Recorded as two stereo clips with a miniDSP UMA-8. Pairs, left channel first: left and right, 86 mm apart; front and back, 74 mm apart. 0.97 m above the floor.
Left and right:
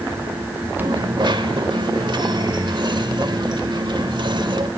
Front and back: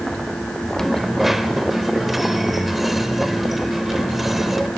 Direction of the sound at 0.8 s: 95° right.